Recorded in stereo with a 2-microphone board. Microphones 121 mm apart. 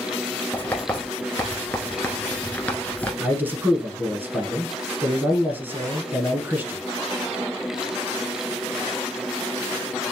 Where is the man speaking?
15° right (ahead or behind), 1.1 m.